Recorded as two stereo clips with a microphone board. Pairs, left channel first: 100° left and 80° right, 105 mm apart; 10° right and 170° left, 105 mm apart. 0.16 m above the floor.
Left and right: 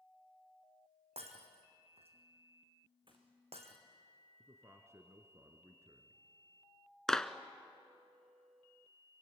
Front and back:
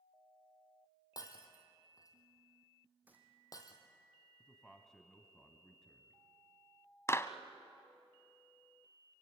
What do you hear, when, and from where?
1.2 s breaking glass: 65° right, 2.5 m
3.1 s a gunshot: 115° right, 3.5 m
4.4 s a man speaking: 90° right, 1.6 m
7.1 s a clap: 20° left, 0.9 m